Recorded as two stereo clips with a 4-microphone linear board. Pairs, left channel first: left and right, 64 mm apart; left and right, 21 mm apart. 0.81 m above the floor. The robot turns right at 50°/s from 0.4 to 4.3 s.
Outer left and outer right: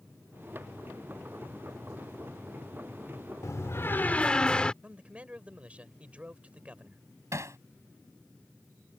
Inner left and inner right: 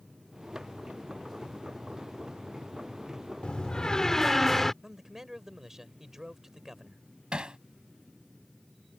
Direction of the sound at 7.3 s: 50° right (ahead or behind).